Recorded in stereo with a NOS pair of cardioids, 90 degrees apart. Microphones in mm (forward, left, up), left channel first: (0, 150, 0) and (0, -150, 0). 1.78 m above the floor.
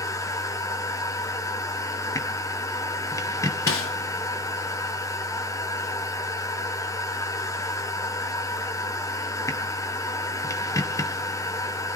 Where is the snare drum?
45° left, 2.5 m.